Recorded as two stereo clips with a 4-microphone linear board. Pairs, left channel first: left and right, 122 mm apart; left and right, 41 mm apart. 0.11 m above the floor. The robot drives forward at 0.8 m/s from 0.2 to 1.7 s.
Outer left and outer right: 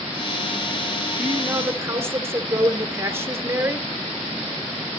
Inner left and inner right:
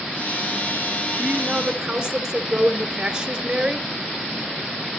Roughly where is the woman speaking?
Right.